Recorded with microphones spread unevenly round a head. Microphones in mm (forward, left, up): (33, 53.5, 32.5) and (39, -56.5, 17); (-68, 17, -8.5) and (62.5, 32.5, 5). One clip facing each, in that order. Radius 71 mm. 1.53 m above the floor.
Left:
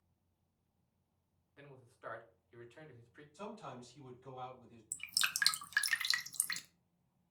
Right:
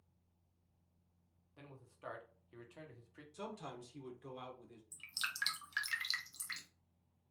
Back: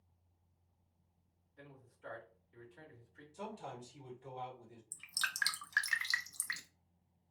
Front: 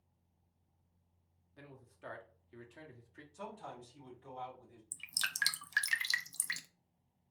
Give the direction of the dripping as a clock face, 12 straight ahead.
10 o'clock.